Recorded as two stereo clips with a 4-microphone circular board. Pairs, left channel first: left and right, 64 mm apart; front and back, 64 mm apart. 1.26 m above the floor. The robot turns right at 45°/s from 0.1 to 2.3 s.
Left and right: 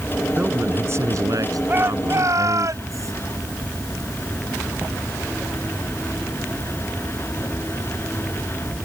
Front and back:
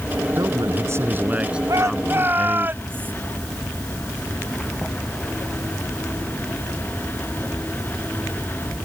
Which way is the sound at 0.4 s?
160° right.